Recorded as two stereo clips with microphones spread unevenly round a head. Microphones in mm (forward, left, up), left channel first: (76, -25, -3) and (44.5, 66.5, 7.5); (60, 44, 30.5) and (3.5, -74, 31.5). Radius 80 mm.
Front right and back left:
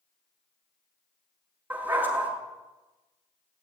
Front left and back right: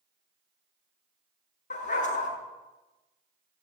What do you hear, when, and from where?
1.7 s a dog barking: 40° left, 5.5 m